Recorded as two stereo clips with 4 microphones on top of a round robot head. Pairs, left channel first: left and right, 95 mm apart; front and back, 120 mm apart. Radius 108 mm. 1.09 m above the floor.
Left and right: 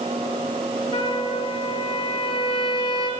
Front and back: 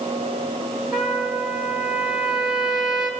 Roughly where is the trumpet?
Left.